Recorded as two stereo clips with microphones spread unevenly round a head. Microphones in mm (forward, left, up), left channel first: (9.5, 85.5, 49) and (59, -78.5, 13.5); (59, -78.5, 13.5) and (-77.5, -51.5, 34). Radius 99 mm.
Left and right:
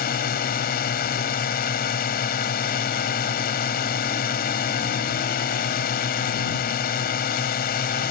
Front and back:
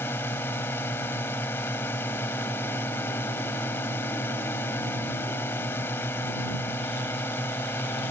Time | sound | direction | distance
0.0 | a drone | 70° left | ?